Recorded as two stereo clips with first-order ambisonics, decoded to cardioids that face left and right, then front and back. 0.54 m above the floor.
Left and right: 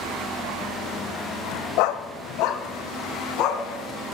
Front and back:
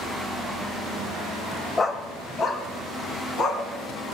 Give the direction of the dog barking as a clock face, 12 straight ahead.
9 o'clock.